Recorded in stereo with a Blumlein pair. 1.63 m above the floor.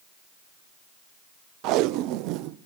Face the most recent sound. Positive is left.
turn(degrees=-40)